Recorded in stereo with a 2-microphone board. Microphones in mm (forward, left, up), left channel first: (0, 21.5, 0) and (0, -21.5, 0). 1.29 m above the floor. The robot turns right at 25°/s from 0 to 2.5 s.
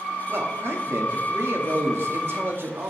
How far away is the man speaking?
About 2.5 m.